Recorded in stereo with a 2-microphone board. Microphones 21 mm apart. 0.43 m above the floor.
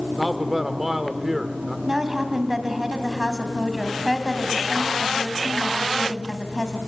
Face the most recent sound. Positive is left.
turn(degrees=-25)  # may be behind; listen again after turning